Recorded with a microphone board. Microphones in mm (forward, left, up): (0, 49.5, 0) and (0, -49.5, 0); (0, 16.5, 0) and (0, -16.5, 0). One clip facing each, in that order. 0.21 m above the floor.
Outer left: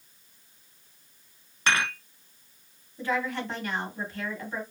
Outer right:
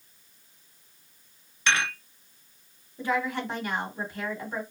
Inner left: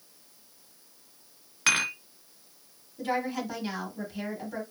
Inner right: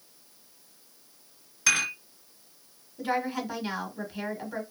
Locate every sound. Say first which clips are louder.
1.7 s dishes clattering: even, even; 45° left (ahead or behind), 1.2 m
3.0 s a woman speaking: outer right 1 dB, inner right 1 dB; 15° right (ahead or behind), 1.0 m